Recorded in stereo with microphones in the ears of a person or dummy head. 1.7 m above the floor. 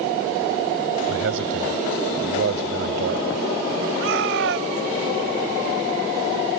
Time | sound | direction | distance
1.1 | a man speaking | 75° right (ahead or behind) | ?
4.0 | a shout | 75° right (ahead or behind) | ?